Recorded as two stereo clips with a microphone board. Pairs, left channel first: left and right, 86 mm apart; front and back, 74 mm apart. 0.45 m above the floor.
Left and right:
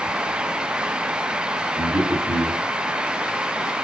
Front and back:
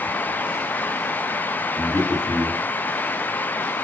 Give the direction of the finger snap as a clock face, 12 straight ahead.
No finger snap in this recording.